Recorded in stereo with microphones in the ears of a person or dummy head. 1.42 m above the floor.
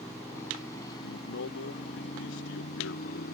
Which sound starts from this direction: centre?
A motorcycle, at 0.0 s.